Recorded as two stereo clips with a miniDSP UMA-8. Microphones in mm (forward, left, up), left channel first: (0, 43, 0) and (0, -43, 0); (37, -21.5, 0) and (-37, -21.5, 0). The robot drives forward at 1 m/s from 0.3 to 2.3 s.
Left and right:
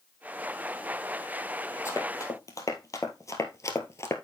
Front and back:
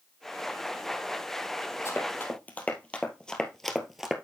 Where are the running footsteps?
40° left, 2.5 m; by 4.2 s 100° left, 1.4 m.